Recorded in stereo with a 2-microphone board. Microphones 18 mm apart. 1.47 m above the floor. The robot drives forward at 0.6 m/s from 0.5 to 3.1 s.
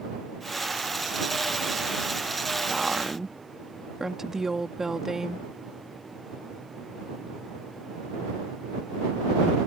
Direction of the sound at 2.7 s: 35° right (ahead or behind).